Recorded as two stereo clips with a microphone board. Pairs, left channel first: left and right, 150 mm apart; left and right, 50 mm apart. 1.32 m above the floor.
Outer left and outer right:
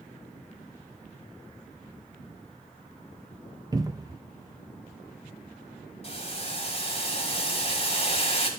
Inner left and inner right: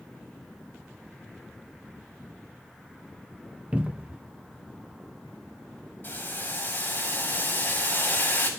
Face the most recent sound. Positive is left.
turn(degrees=40)  # may be behind; listen again after turning